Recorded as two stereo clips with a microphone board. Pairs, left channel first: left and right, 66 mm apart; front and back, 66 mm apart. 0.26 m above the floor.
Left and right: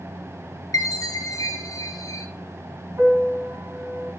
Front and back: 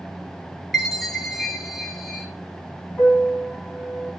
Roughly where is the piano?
Right.